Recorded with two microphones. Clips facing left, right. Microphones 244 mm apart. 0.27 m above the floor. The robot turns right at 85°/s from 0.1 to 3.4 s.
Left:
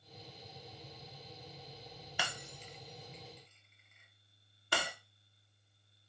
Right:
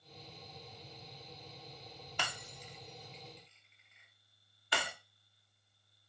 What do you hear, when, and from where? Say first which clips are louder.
2.2 s breaking glass: left 1 dB; 5° left (ahead or behind), 0.7 m; by 4.9 s 50° left (ahead or behind), 0.7 m